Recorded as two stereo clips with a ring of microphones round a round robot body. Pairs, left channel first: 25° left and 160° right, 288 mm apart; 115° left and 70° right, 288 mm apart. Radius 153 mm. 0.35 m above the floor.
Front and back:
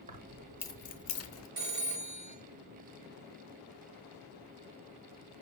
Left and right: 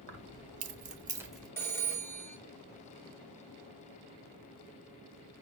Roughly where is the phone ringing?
Behind.